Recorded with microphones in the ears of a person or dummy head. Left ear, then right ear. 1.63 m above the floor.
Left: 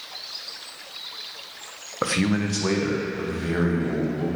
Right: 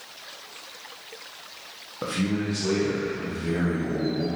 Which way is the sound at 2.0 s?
65° left (ahead or behind).